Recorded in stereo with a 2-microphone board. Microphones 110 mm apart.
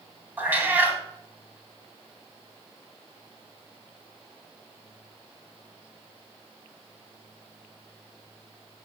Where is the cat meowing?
15° right (ahead or behind), 1.6 m.